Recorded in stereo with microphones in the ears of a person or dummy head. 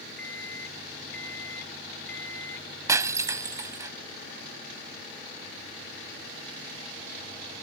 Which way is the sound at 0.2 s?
5° left (ahead or behind).